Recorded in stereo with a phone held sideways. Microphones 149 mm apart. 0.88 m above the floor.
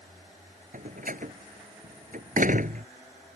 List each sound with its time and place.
0.7 s a door slam: 65° right (ahead or behind)